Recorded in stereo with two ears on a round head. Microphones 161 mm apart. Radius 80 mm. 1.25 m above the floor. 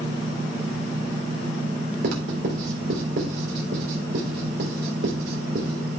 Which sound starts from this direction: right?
Writing, at 2.0 s.